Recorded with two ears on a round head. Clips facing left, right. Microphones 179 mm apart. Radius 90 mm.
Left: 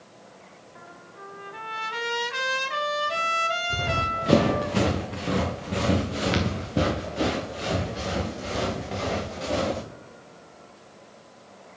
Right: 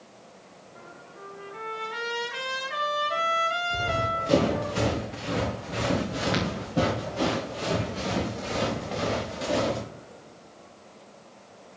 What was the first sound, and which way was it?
A trumpet, 60° left (ahead or behind).